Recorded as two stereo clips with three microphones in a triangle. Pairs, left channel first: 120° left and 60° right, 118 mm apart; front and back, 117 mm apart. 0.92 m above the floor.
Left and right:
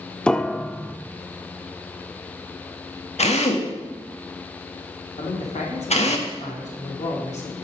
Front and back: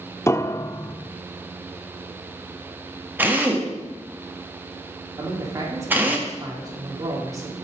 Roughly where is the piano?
Ahead left.